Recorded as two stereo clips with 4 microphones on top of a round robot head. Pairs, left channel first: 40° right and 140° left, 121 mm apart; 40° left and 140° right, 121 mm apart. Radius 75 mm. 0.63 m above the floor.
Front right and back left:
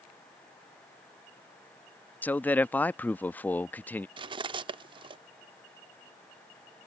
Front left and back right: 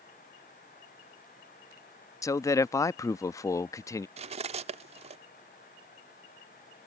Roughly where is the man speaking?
Ahead.